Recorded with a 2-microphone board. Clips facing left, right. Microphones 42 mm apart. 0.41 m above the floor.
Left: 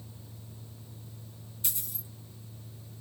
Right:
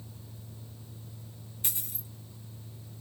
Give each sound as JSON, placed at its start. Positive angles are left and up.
{"t": 1.6, "sound": "a dropped coin", "side_deg": -35, "distance_m": 1.6}